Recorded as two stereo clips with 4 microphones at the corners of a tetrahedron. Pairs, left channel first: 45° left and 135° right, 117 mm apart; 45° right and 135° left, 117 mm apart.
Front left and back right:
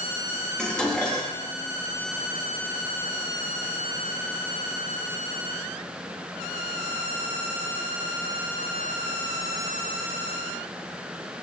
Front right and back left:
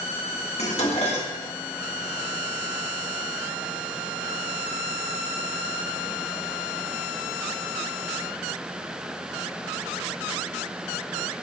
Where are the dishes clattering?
35° right, 1.2 m.